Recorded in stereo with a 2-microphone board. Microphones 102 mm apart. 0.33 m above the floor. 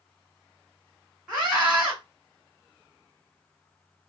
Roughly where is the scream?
Centre.